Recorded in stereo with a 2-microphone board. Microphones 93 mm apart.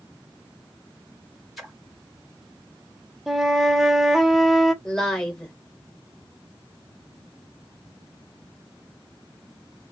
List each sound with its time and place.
1.6 s a splash: centre (ahead or behind), 1.6 m
3.3 s a flute: centre (ahead or behind), 0.6 m
4.8 s a woman speaking: 5° left (ahead or behind), 1.4 m